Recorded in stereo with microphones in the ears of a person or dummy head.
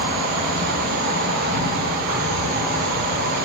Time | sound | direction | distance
0.0 | an insect | 60° right (ahead or behind) | 2.5 m